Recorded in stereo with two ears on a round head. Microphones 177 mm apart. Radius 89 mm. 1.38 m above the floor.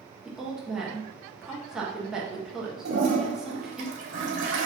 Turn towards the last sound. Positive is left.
turn(degrees=-40)  # may be behind; listen again after turning